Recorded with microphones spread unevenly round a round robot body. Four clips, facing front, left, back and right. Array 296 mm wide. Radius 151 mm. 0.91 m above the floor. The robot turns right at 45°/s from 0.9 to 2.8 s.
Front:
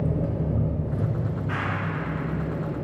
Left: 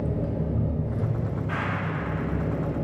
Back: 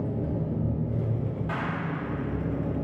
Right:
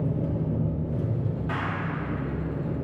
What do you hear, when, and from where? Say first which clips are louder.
0.0 s an engine running: even, front 3 dB; 10° left, 1.1 m; by 2.8 s 100° left, 1.1 m
1.5 s a clap: left 1 dB, front 2 dB; 150° right, 2.5 m; by 1.9 s 130° right, 2.5 m